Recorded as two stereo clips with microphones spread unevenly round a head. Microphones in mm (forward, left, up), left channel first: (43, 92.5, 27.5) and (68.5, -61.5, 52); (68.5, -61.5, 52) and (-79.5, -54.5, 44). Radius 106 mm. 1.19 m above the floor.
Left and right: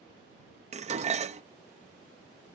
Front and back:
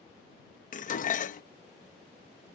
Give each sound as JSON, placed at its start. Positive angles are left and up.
{"t": 0.7, "sound": "dishes clattering", "azimuth_deg": -35}